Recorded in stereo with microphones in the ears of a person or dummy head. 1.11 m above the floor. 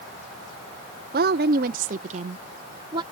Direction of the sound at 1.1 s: 45° right (ahead or behind).